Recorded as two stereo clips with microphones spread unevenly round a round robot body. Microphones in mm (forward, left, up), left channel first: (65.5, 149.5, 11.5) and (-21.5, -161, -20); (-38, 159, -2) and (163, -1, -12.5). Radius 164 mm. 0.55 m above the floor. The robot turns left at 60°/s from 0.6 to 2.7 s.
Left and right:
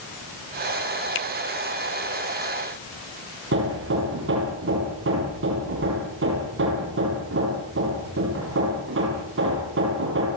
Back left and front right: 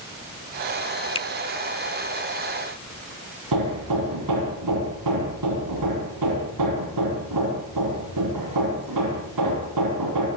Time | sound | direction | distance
1.1 | a finger snap | 75° left | 1.5 m
3.5 | hammering | 50° right | 7.5 m